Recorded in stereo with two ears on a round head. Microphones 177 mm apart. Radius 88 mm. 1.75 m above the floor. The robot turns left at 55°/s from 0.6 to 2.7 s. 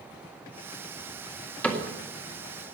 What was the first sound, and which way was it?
A cupboard door, 10° left (ahead or behind).